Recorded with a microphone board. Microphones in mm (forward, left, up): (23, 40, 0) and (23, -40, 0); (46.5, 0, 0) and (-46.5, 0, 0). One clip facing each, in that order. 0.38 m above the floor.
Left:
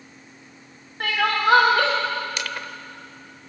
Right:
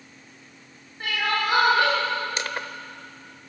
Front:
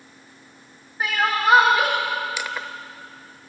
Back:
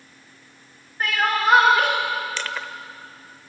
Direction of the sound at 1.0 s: 80° left.